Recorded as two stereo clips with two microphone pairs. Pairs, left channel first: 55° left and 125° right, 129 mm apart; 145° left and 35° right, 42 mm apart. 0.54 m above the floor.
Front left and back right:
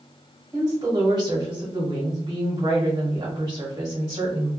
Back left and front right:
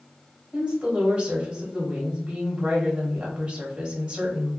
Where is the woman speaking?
95° right, 1.2 m.